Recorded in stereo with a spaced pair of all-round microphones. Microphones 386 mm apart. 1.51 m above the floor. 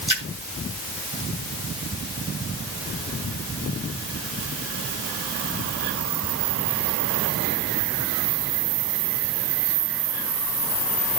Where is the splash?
50° right (ahead or behind), 2.5 m.